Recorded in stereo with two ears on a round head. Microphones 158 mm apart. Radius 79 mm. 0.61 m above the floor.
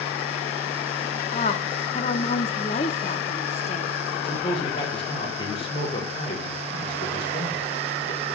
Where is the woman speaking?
35° left (ahead or behind), 0.8 m.